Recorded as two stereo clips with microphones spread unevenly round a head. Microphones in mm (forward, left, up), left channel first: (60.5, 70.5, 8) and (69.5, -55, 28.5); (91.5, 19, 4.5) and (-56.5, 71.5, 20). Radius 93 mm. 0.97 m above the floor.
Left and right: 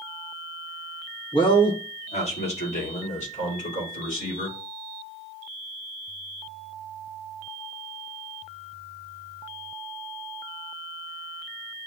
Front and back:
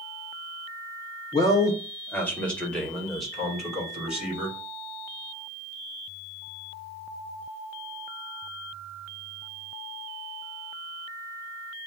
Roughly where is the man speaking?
Ahead left.